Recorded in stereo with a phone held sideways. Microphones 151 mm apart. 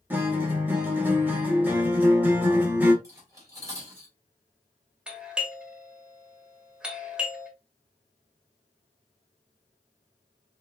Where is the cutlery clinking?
20° right (ahead or behind), 3 m.